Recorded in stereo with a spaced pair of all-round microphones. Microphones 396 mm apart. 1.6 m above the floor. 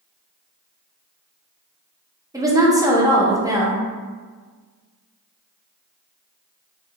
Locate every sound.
2.3 s a woman speaking: 10° right (ahead or behind), 0.5 m